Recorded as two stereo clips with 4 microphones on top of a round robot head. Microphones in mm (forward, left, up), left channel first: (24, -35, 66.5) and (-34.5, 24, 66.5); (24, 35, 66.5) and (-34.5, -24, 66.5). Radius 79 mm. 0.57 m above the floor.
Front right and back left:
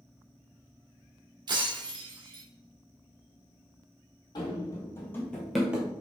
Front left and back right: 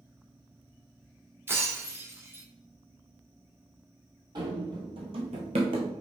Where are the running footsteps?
90° right, 1.3 m; by 5.9 s 160° right, 0.8 m.